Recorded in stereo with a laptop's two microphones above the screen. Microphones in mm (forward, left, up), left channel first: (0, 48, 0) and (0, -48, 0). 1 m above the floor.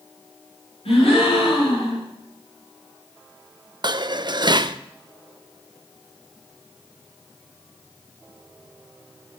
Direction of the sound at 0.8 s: 80° left.